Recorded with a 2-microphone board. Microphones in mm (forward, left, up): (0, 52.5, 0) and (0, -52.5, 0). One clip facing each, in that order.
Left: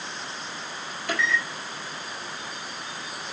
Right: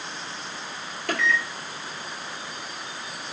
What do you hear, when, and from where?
1.1 s a microwave: 55° right (ahead or behind), 2 m